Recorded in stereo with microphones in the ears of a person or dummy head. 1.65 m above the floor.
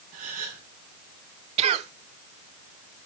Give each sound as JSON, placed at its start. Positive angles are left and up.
{"t": 0.1, "sound": "a gasp", "side_deg": -50, "distance_m": 4.5}
{"t": 1.6, "sound": "a cough", "side_deg": -35, "distance_m": 0.7}